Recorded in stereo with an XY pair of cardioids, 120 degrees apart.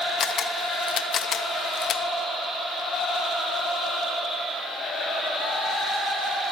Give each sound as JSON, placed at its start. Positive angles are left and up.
{"t": 0.2, "sound": "a camera shutter", "azimuth_deg": 50, "distance_m": 0.7}